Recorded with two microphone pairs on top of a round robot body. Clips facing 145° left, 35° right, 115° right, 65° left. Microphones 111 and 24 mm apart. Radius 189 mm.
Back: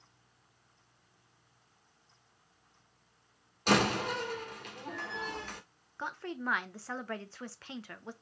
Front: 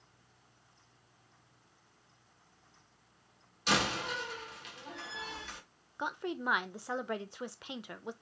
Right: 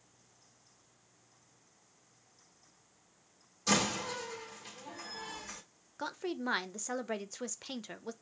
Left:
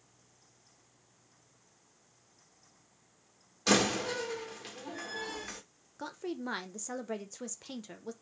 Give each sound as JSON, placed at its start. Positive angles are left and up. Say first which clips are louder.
{"t": 3.7, "sound": "a door slam", "louder": "back 5 dB, left 3 dB", "azimuth_deg": 105, "distance_m": 1.4}
{"t": 6.0, "sound": "a woman speaking", "louder": "front 2 dB, right 1 dB", "azimuth_deg": -90, "distance_m": 0.8}